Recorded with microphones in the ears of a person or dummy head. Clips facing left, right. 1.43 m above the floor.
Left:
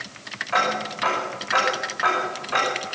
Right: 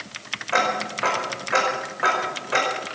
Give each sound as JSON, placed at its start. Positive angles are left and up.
{"t": 0.5, "sound": "ticking", "side_deg": -40, "distance_m": 5.5}